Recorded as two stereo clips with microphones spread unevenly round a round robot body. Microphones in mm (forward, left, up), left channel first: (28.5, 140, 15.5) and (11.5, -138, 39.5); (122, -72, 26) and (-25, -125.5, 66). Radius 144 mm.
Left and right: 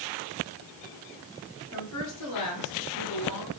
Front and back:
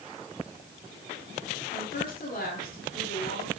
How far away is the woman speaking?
About 9.5 m.